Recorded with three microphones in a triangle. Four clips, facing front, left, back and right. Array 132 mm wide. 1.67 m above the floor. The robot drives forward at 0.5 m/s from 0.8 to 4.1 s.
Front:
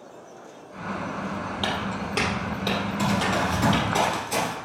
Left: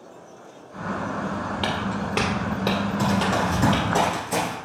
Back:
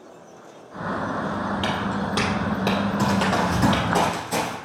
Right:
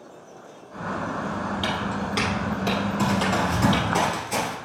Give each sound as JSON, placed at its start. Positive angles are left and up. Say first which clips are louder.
{"t": 1.6, "sound": "footsteps", "louder": "left 1 dB, back 3 dB", "azimuth_deg": 80, "distance_m": 2.5}
{"t": 3.0, "sound": "running footsteps", "louder": "left 1 dB, back 1 dB", "azimuth_deg": 150, "distance_m": 1.8}